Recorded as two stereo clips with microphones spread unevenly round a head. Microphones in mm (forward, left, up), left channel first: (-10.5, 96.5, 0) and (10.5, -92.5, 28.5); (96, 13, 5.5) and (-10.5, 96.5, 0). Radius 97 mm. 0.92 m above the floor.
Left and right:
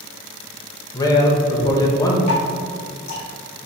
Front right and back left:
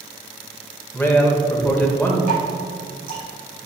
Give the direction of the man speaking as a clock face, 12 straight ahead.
11 o'clock.